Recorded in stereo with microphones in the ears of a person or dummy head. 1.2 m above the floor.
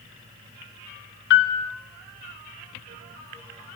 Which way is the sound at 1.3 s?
60° left (ahead or behind).